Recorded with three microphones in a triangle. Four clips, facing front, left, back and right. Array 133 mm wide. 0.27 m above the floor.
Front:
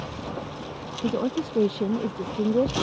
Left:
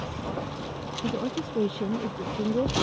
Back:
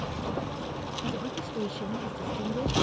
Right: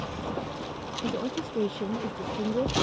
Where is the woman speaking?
5° left.